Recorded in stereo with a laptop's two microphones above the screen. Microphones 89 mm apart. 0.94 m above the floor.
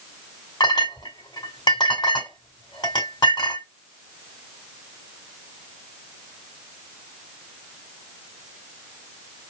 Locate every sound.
0.6 s a clink: 60° left (ahead or behind), 1.8 m